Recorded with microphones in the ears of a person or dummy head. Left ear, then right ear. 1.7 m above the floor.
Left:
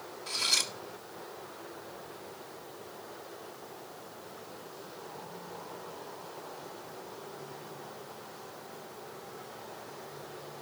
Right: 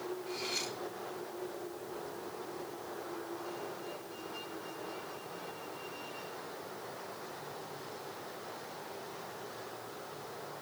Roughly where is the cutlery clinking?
Left.